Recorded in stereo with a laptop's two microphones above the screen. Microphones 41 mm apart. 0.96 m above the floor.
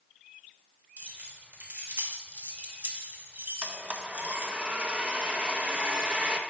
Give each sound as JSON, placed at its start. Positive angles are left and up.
{"t": 1.0, "sound": "keys jangling", "side_deg": -50, "distance_m": 1.2}
{"t": 3.6, "sound": "a blender", "side_deg": -25, "distance_m": 0.7}